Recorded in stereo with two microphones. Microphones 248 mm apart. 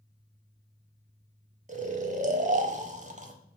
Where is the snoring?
30° right (ahead or behind), 0.5 m.